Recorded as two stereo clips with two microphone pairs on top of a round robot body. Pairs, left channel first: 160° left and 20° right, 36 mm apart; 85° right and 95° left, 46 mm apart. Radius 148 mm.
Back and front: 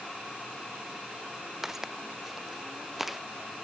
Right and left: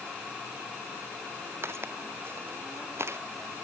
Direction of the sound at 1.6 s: 60° left.